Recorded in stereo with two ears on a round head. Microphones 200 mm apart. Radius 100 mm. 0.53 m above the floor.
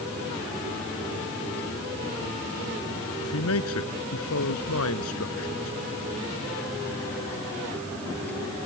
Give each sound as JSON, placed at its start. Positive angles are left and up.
{"t": 3.2, "sound": "a man speaking", "side_deg": 70}